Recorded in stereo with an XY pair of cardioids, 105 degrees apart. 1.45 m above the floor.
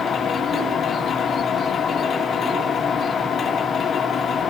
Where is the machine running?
55° left, 2 m.